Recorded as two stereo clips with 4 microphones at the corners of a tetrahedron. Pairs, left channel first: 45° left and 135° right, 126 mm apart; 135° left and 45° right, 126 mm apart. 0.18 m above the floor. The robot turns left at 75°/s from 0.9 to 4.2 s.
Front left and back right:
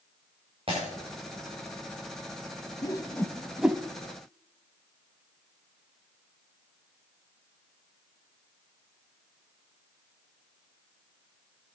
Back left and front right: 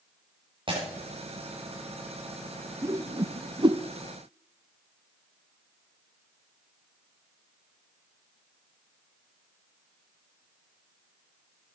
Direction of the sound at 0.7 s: 95° right.